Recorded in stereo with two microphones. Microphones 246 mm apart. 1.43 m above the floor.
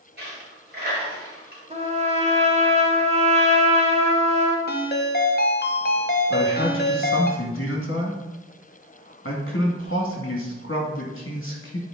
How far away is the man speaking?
About 2 m.